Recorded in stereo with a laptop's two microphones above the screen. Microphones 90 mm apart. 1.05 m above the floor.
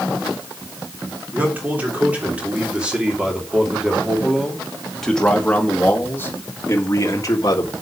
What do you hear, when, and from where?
1.3 s a man speaking: 20° right (ahead or behind), 3.5 m; by 7.7 s 45° left (ahead or behind), 1.8 m